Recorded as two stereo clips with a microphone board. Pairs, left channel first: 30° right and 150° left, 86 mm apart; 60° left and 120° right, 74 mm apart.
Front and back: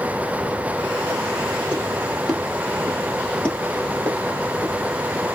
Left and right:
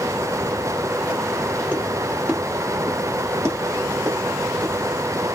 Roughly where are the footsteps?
Behind.